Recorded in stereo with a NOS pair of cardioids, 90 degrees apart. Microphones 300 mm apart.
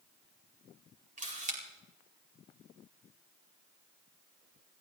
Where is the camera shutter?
25° right, 4.5 m.